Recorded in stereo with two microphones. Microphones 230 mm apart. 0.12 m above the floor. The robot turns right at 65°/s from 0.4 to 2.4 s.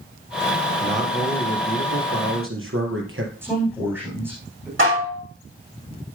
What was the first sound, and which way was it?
A man speaking, 170° left.